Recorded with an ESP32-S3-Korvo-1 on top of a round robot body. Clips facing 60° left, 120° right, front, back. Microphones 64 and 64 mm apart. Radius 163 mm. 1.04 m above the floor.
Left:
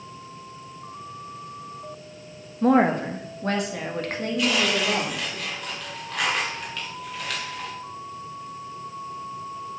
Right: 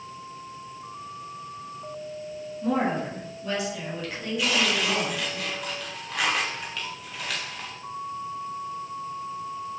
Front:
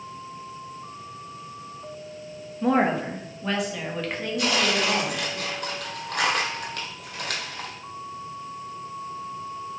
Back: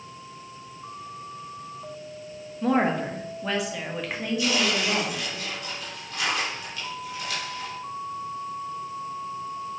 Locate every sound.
2.6 s a woman speaking: 85° left, 1.6 m; by 5.4 s 100° left, 3.5 m
4.4 s tearing paper: 30° right, 1.8 m